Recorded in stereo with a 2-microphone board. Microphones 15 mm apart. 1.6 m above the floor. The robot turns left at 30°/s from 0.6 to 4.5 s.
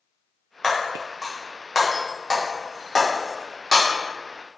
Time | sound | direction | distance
0.6 | breaking glass | 25° left (ahead or behind) | 0.7 m